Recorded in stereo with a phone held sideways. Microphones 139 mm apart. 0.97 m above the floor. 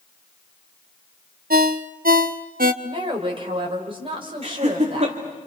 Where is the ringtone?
80° right, 0.9 m.